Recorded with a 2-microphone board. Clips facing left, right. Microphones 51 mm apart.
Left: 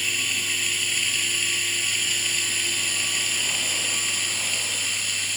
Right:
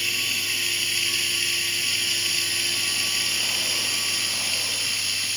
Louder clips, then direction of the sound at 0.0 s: Left 1 dB; 10° left (ahead or behind).